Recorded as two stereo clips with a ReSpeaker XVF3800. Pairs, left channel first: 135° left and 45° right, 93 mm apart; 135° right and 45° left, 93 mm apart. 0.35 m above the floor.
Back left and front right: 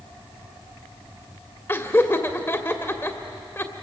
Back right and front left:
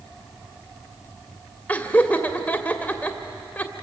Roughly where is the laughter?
Behind.